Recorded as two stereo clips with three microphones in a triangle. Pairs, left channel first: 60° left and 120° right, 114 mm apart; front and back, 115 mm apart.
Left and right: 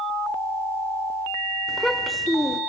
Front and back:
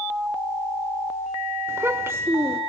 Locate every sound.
1.7 s a child speaking: 150° left, 0.9 m